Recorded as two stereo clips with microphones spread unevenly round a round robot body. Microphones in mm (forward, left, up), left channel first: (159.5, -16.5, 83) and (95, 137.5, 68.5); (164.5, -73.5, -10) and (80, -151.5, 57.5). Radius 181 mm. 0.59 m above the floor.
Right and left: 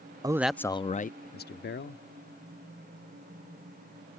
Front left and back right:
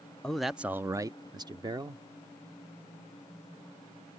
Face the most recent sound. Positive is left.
turn(degrees=-65)